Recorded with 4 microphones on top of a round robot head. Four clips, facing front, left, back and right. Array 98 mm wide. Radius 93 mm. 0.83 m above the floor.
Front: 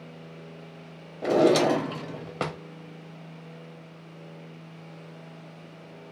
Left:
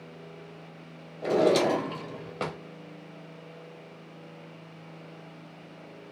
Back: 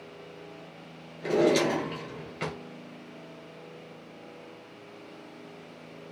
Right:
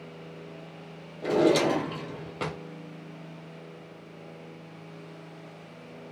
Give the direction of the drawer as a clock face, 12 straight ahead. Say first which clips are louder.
Even, front 3 dB; 12 o'clock.